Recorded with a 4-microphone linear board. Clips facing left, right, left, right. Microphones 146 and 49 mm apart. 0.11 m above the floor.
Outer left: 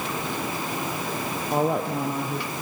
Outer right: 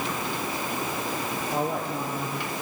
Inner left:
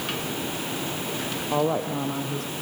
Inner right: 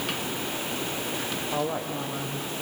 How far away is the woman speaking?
About 3 m.